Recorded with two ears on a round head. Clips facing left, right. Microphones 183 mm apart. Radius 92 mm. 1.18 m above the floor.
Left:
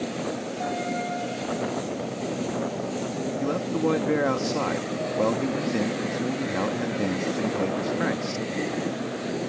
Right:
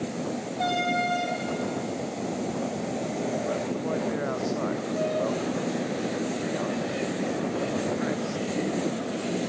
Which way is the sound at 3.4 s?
80° left.